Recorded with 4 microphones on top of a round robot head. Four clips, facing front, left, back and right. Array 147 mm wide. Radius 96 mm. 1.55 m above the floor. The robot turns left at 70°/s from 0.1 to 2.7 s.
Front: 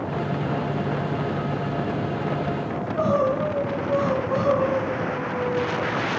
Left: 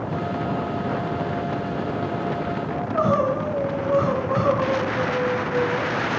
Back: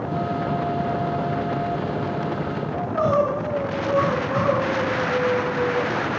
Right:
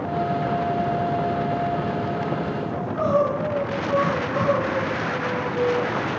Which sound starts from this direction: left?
Crying, at 2.7 s.